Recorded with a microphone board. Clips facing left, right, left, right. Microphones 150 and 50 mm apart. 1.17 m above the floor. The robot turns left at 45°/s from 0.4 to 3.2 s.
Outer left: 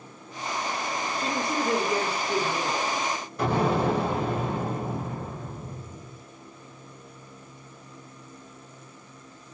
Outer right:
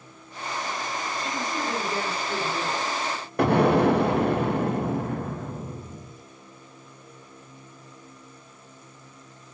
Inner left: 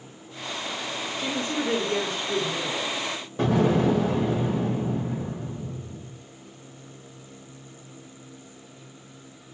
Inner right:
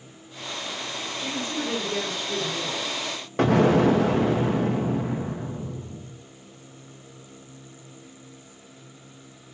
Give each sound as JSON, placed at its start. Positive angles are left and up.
{"t": 1.2, "sound": "a woman speaking", "azimuth_deg": 75, "distance_m": 1.1}
{"t": 3.4, "sound": "an explosion", "side_deg": -65, "distance_m": 0.6}